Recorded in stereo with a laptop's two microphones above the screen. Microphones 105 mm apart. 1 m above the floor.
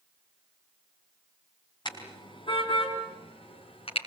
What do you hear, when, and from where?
1.9 s a car horn: 45° left (ahead or behind), 4 m; by 4.0 s 65° left (ahead or behind), 5.5 m